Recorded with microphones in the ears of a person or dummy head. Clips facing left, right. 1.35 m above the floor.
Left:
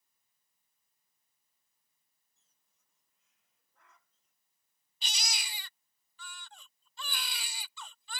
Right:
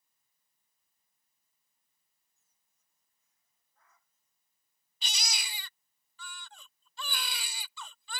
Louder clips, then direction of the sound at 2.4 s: Left 4 dB; 60° left (ahead or behind).